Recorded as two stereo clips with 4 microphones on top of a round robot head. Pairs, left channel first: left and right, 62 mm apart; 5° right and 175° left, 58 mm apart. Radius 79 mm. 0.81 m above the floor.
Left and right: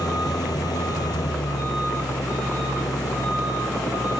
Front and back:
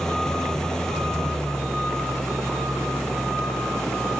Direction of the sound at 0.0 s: 75° left.